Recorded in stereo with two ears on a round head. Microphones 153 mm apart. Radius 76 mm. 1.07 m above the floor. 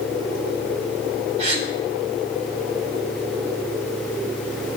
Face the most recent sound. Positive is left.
turn(degrees=-40)  # may be behind; listen again after turning